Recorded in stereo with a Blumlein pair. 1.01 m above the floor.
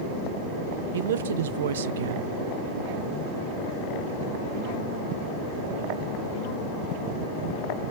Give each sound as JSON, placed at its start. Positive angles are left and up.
{"t": 0.9, "sound": "a man speaking", "azimuth_deg": -60, "distance_m": 0.6}